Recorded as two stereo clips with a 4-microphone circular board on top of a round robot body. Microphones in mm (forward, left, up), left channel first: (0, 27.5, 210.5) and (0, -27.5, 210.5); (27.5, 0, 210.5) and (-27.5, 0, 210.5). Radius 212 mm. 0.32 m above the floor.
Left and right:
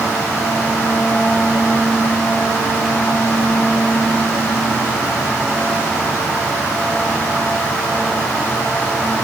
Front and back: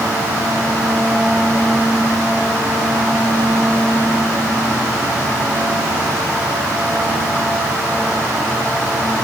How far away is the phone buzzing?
No phone buzzing in this recording.